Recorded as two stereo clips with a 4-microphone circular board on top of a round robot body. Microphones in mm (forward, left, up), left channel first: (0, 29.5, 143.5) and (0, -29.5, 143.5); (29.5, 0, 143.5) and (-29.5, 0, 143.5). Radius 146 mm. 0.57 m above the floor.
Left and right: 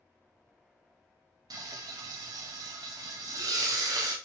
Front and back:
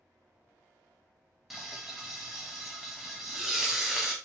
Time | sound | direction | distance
1.5 | frying | 95° right | 0.6 m